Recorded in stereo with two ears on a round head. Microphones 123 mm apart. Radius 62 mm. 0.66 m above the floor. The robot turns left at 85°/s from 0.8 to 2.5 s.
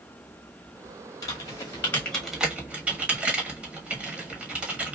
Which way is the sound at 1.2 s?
30° left (ahead or behind).